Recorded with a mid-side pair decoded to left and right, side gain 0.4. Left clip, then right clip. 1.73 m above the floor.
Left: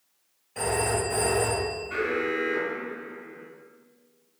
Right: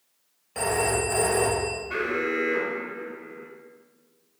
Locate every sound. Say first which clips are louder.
0.6 s a phone ringing: right 2 dB; 55° right, 2.0 m
1.9 s an alarm: even; 45° right, 1.8 m